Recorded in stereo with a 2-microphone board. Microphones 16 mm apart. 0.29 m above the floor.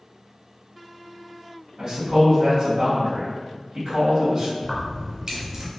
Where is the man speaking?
35° right (ahead or behind), 1.6 m.